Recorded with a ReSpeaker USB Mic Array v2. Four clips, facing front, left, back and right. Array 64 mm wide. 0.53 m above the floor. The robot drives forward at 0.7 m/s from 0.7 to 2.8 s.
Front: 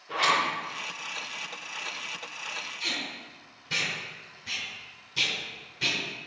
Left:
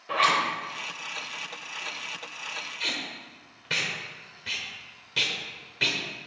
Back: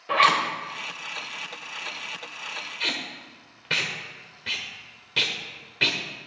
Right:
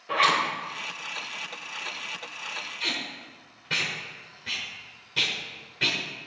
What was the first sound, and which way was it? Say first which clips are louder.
A zipper: even, back 6 dB; straight behind.